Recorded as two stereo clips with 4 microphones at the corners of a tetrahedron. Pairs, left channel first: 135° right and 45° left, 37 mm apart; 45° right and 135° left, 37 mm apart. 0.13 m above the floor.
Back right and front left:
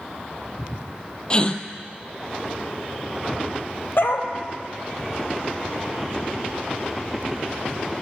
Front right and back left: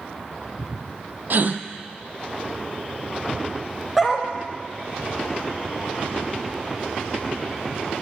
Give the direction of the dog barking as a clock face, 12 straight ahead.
5 o'clock.